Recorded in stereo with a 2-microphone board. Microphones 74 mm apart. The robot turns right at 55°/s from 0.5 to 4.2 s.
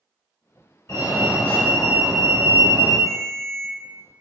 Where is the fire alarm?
110° left, 1.2 m; by 3.0 s 135° right, 1.2 m.